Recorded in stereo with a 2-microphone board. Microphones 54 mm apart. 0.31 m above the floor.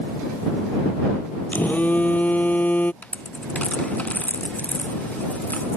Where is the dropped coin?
30° left (ahead or behind).